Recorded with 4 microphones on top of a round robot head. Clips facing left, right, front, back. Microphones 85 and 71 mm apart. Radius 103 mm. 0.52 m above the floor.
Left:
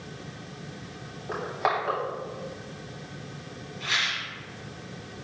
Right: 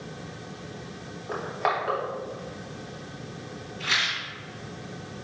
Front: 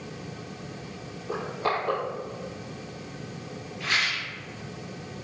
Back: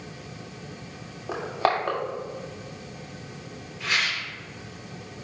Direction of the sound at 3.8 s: 90° right.